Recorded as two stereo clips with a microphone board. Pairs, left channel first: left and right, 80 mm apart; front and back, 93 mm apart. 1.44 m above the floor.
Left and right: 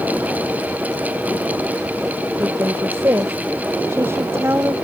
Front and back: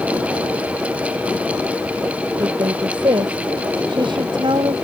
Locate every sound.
2.4 s a woman speaking: 145° right; by 4.7 s 150° right